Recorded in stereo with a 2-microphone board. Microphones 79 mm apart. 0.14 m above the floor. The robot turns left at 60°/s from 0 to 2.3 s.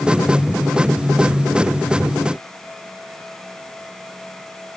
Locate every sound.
Only background noise.